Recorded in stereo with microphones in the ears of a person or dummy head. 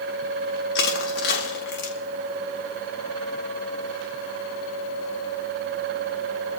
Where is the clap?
No clap in this recording.